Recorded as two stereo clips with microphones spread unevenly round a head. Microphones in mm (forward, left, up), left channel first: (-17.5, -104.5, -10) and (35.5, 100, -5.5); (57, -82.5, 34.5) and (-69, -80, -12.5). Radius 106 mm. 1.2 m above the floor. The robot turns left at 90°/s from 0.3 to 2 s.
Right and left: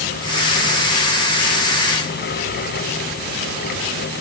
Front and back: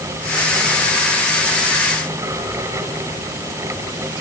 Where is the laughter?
I don't hear laughter.